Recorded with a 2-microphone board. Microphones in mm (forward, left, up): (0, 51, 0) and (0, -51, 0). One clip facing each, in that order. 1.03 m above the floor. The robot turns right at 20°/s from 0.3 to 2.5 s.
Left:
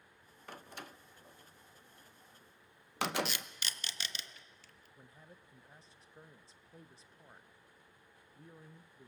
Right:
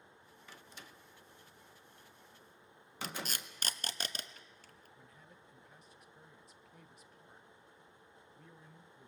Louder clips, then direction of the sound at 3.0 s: Left 6 dB; 45° right (ahead or behind).